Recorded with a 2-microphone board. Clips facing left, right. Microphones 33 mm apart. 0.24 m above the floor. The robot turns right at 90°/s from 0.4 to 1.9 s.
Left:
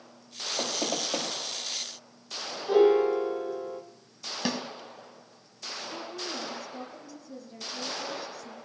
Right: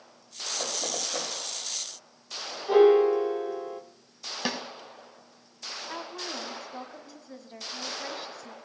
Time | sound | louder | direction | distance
0.6 | knocking | left 3 dB | 60° left (ahead or behind) | 5 m
2.7 | a piano | right 2 dB | 15° right (ahead or behind) | 1.6 m
4.5 | a snare drum | left 1 dB | 10° right (ahead or behind) | 1.4 m
5.9 | a woman speaking | right 1 dB | 45° right (ahead or behind) | 1.8 m